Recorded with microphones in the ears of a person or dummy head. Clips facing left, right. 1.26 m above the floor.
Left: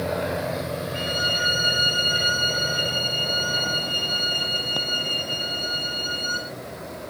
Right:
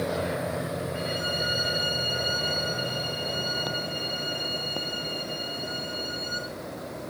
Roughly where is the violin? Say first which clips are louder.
Left 2 dB; left.